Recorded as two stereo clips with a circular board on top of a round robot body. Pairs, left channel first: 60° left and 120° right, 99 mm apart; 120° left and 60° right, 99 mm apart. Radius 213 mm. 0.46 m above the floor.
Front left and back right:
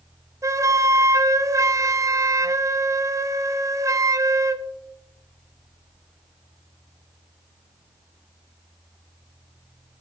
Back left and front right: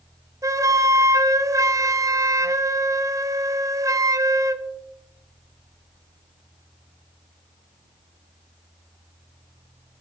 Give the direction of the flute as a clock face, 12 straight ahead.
3 o'clock.